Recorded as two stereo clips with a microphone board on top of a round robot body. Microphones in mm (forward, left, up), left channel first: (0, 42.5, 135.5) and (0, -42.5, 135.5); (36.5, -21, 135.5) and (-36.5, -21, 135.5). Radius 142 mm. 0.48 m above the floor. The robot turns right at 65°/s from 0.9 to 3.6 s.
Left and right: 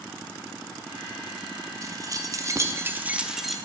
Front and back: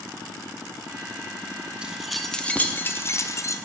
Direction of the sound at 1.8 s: 110° right.